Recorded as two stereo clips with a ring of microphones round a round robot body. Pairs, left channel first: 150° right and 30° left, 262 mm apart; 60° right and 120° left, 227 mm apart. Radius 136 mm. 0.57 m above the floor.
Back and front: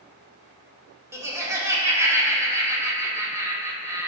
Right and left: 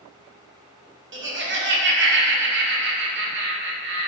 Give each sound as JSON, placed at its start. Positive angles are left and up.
{"t": 1.1, "sound": "laughter", "azimuth_deg": 105, "distance_m": 2.0}